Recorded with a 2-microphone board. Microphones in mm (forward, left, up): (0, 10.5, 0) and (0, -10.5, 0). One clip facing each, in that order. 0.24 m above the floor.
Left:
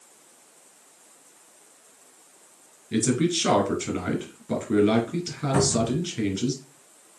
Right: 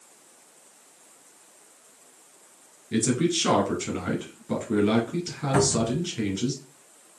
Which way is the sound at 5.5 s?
20° right (ahead or behind).